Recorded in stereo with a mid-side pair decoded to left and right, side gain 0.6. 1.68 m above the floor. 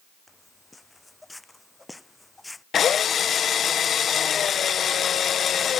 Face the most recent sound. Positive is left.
turn(degrees=40)